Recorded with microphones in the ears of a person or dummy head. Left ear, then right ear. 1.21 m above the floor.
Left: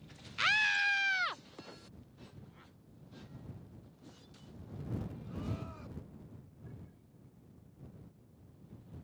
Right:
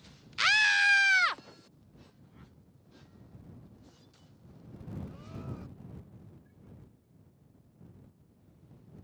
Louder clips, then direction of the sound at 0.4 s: Right 5 dB; 20° right (ahead or behind).